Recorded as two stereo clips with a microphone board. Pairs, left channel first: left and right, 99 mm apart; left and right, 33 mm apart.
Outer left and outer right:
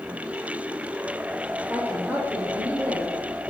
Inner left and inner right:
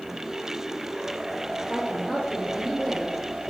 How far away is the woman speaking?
About 5.5 m.